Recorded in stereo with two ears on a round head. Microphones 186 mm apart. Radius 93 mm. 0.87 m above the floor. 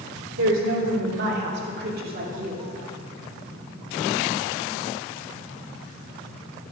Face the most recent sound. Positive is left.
turn(degrees=-40)  # may be behind; listen again after turning